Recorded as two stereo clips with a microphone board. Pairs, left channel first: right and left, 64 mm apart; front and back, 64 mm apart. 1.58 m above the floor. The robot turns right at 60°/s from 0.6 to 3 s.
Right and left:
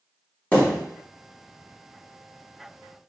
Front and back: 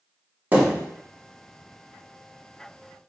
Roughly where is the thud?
Behind right.